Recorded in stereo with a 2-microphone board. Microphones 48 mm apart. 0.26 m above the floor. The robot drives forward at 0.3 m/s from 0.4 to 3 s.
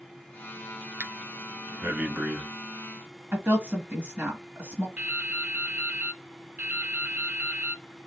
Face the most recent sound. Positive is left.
turn(degrees=-30)  # may be behind; listen again after turning